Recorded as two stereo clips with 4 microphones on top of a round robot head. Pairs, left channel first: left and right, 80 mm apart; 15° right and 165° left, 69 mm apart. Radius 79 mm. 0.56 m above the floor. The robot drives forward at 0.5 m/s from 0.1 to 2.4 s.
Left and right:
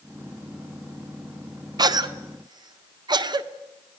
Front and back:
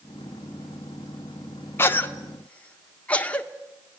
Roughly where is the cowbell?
I don't hear a cowbell.